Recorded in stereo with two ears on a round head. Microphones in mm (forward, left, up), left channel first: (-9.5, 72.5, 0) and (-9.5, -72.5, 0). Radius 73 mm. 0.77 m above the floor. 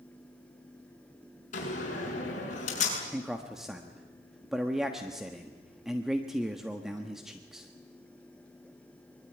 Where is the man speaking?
5° right (ahead or behind), 1.3 m.